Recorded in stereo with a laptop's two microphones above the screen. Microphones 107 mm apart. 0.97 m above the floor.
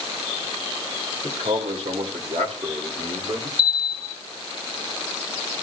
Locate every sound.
1.2 s a man speaking: 80° right, 3.5 m; by 3.5 s 50° right (ahead or behind), 3 m
3.6 s a bell: 60° right (ahead or behind), 1.3 m